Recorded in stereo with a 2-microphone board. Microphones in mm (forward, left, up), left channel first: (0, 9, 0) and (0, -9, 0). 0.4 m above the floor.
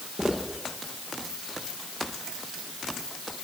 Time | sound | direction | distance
0.2 | footsteps | 75° right (ahead or behind) | 9 m